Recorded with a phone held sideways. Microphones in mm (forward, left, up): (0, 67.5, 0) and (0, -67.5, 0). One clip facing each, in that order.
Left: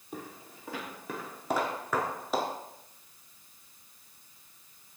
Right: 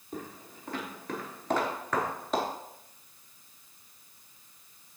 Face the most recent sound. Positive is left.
turn(degrees=5)  # may be behind; listen again after turning